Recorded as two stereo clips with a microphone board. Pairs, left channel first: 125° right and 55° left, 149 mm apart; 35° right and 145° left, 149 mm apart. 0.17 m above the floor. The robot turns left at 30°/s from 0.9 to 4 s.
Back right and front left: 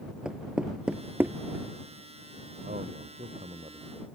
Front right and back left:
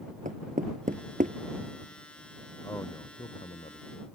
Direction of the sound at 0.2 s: 140° left.